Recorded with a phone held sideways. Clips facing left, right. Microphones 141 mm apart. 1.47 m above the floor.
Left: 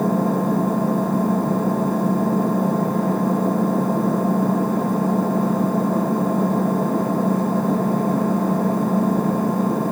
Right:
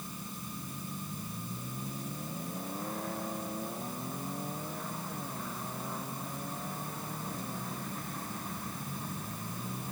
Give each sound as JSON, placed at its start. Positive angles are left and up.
{"t": 0.0, "sound": "an engine running", "side_deg": 85}